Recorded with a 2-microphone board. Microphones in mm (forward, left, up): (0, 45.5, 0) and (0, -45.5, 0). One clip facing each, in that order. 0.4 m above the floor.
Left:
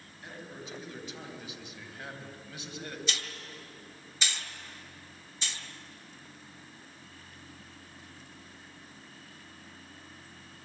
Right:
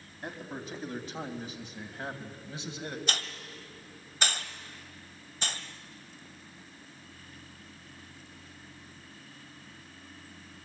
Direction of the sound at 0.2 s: 50° right (ahead or behind).